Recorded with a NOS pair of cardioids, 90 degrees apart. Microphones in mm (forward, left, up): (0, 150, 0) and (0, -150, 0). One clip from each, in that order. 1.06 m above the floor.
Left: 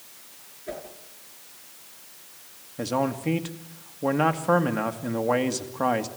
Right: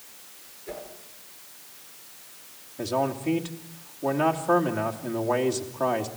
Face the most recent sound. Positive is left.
turn(degrees=35)